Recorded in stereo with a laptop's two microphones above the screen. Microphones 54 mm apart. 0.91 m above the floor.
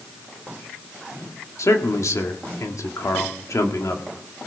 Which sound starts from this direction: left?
A man speaking, at 1.6 s.